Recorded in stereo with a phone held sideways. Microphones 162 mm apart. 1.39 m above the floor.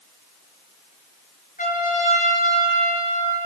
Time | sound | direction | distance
1.6 | a trumpet | 55° left (ahead or behind) | 4.5 m